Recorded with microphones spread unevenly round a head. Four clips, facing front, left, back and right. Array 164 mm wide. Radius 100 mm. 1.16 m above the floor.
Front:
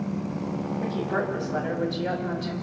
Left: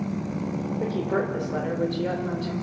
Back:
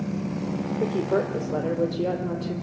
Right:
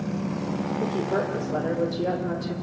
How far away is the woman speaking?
About 3 m.